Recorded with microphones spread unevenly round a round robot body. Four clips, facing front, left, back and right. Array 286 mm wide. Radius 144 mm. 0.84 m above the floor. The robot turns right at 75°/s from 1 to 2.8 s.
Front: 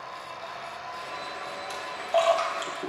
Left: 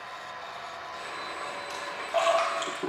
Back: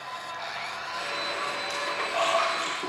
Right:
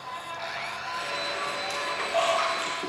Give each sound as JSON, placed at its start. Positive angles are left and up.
{"t": 1.7, "sound": "a splash", "azimuth_deg": -35, "distance_m": 2.5}